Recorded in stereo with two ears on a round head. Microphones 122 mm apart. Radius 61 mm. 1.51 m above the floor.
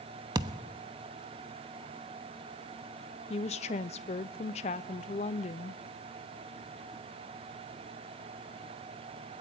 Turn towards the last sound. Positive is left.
turn(degrees=50)  # may be behind; listen again after turning